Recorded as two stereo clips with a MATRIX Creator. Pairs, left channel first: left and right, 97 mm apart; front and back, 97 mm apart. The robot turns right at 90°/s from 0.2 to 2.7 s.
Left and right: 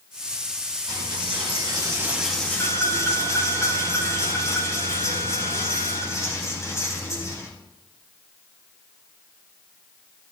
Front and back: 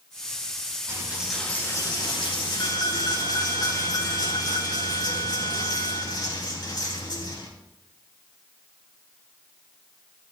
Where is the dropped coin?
130° right, 3 m; by 7.5 s 35° left, 3 m.